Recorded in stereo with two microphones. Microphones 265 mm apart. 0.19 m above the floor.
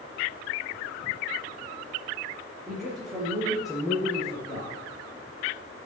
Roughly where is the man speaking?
Centre.